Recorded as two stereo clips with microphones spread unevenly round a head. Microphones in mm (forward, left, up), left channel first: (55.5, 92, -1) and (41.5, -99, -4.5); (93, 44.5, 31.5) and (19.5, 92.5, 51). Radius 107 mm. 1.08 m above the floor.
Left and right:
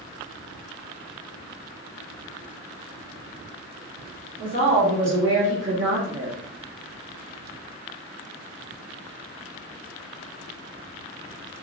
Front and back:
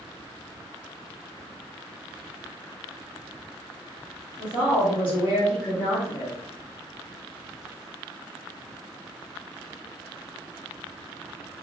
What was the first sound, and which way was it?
A woman speaking, 115° right.